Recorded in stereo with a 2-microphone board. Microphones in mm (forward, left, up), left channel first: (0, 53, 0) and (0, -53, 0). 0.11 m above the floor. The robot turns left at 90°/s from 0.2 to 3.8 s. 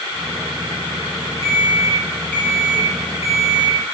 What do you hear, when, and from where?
1.4 s an alarm clock: 110° right, 2.5 m; by 3.9 s 35° left, 2.5 m